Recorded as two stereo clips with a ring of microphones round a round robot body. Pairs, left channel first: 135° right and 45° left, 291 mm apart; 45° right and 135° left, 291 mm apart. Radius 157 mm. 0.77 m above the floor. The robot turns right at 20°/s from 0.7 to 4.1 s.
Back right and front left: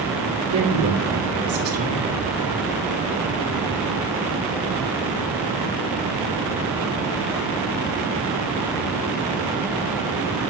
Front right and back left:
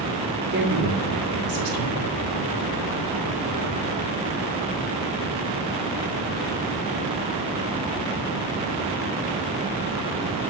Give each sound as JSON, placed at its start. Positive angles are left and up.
{"t": 0.5, "sound": "a woman speaking", "azimuth_deg": 80, "distance_m": 3.0}